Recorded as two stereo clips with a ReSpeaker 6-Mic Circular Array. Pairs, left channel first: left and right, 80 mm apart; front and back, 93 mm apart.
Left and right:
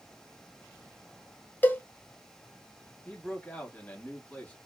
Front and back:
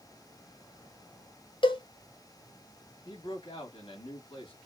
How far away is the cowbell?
About 0.5 m.